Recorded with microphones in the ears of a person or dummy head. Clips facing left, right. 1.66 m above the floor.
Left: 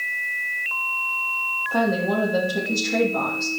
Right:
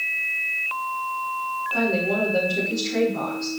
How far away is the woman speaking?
About 3 m.